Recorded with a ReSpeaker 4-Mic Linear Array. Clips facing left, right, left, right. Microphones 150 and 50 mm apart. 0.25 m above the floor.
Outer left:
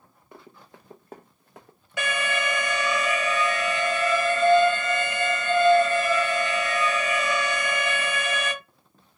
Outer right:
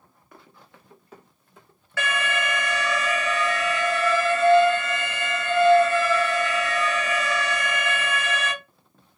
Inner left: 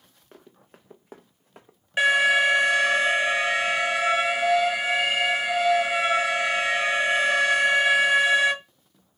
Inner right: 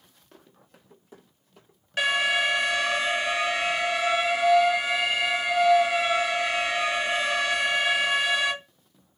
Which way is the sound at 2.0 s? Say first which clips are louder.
Even, inner left 4 dB; 15° left (ahead or behind).